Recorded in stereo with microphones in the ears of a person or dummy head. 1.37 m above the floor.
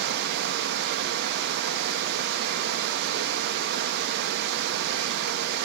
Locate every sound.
0.0 s running water: 60° right (ahead or behind), 0.9 m